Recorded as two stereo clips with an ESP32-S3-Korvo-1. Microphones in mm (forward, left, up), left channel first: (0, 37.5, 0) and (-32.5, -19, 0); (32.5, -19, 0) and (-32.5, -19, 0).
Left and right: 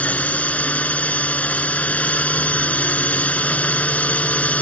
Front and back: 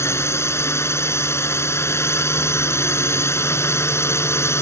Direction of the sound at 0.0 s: Straight ahead.